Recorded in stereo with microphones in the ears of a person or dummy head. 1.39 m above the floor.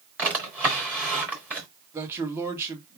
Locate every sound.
0.2 s a drawer: 10° right (ahead or behind), 1.0 m
1.9 s a man speaking: 10° right (ahead or behind), 1.6 m